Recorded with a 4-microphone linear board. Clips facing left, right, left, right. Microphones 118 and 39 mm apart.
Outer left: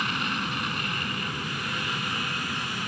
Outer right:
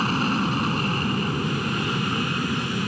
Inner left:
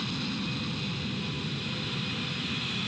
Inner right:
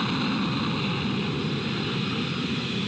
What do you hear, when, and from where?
0.0 s an aircraft: 35° right (ahead or behind)